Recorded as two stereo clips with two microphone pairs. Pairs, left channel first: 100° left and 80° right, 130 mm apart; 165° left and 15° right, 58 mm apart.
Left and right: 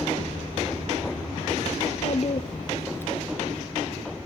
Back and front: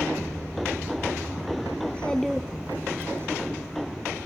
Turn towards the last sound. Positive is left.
turn(degrees=25)